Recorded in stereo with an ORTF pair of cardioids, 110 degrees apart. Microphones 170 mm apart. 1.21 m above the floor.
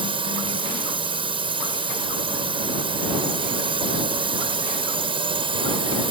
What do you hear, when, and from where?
0.0 s a drone: 30° right